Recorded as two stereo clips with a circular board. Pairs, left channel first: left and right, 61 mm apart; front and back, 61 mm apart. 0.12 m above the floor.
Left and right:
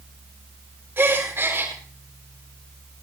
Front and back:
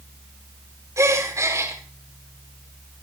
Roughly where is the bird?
I don't hear a bird.